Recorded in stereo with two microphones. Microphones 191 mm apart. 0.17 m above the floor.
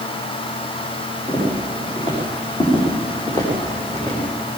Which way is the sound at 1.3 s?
35° left (ahead or behind).